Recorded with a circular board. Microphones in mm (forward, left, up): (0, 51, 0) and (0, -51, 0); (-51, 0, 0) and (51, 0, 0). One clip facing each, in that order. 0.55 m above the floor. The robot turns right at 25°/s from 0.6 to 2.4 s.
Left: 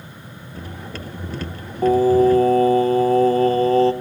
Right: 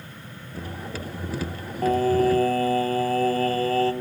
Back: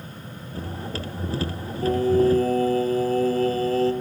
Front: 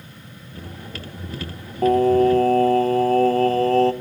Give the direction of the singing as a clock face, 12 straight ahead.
12 o'clock.